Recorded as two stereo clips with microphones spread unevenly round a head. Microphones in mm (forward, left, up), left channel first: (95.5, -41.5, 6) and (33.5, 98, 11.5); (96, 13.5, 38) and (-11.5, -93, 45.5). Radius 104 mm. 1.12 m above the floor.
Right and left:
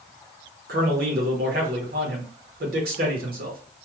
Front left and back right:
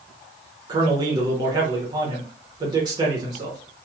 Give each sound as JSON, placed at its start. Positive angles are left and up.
{"t": 0.7, "sound": "a man speaking", "azimuth_deg": 155, "distance_m": 0.9}